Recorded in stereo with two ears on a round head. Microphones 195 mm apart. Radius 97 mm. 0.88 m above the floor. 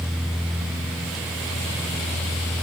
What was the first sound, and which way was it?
Only background noise.